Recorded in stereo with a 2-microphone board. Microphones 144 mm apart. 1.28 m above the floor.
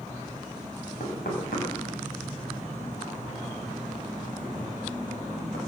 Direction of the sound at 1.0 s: 80° left.